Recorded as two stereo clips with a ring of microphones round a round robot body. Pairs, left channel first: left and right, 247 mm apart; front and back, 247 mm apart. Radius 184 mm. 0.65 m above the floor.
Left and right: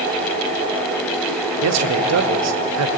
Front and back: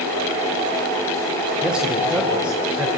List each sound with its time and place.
1.6 s a man speaking: 95° right, 2 m